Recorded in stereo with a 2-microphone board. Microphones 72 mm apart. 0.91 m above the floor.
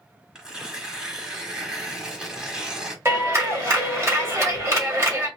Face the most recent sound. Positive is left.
turn(degrees=-35)  # may be behind; listen again after turning